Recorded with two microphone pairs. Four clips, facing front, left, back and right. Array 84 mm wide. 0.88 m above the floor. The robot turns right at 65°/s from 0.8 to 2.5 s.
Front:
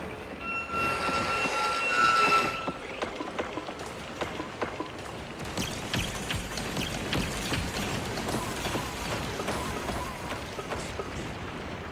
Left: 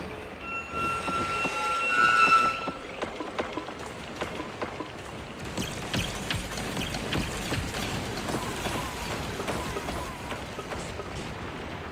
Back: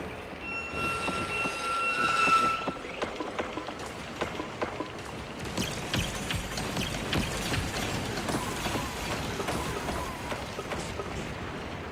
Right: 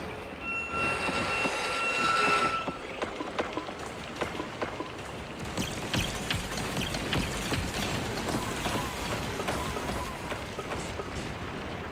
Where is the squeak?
10° right, 3 m; by 2.7 s 100° left, 3 m.